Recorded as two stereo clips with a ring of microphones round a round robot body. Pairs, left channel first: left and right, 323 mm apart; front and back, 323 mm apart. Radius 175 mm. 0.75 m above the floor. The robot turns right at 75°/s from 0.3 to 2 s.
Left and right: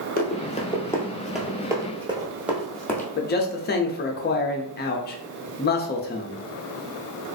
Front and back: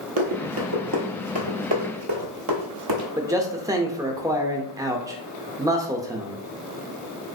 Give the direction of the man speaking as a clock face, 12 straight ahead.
8 o'clock.